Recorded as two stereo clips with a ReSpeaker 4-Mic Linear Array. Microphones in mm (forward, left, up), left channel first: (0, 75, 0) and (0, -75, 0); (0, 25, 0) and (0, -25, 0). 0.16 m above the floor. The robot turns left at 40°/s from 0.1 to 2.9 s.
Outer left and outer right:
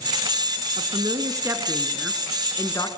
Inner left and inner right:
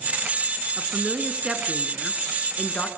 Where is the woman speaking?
125° right, 2.0 m; by 2.9 s 150° left, 2.0 m.